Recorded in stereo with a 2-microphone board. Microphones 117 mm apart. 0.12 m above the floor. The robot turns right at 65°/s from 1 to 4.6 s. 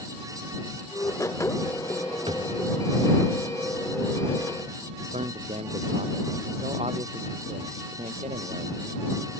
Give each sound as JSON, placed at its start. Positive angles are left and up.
{"t": 2.3, "sound": "a drawer", "side_deg": -50}
{"t": 5.1, "sound": "a man speaking", "side_deg": -65}